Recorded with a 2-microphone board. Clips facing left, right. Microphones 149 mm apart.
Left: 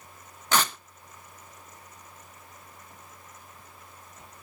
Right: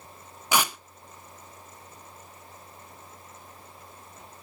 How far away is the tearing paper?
About 1.0 m.